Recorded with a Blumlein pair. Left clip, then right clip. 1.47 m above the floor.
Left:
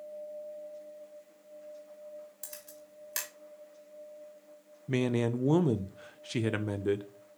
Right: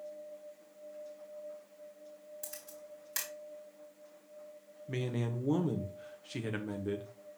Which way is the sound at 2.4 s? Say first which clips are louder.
Right 1 dB; 10° left.